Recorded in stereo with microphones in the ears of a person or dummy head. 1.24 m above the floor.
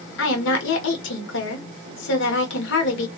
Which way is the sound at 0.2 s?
70° left (ahead or behind).